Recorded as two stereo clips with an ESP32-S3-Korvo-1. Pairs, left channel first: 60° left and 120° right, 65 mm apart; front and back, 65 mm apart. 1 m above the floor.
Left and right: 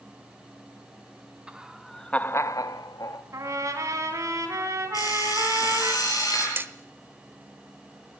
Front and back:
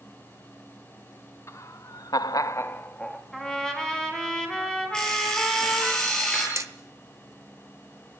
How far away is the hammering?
About 1.0 m.